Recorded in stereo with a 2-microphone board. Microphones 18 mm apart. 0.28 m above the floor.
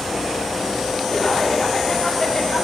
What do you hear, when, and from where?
1.1 s laughter: 10° left (ahead or behind), 2.5 m